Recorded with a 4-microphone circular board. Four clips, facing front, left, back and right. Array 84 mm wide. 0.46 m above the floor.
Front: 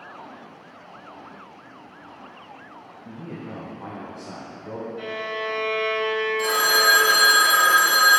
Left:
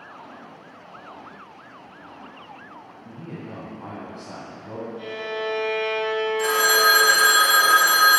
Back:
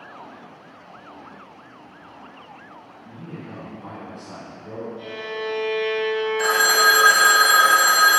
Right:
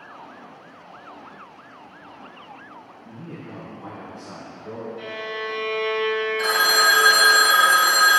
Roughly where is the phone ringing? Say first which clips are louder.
Left 1 dB, back 3 dB; behind.